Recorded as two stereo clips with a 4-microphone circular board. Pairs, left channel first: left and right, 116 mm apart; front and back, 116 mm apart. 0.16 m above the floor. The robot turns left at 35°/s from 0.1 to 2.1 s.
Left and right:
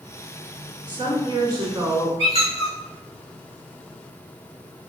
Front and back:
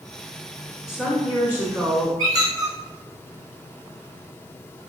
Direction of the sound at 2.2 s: 125° left.